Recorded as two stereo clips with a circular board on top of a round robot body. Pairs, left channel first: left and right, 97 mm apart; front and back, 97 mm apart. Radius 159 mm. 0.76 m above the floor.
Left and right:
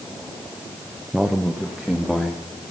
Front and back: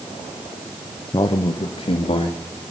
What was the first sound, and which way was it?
A man speaking, 5° right.